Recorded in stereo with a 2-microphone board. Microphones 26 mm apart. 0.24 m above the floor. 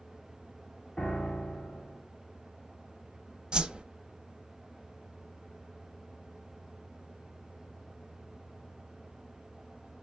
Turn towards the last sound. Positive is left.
turn(degrees=-30)  # may be behind; listen again after turning